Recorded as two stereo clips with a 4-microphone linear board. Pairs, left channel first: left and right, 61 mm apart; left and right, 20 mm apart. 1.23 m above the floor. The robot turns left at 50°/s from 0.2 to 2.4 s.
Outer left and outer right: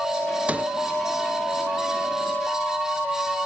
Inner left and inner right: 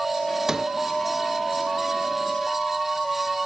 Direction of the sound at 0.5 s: 25° right (ahead or behind).